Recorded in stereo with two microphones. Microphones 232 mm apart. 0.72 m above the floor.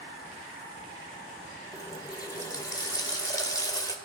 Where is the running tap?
15° left (ahead or behind), 1.8 m.